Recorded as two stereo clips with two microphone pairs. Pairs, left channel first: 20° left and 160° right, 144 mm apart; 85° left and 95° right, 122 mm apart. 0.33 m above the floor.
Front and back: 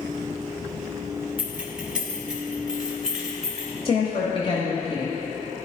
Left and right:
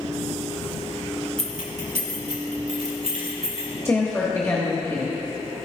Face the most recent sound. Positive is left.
turn(degrees=30)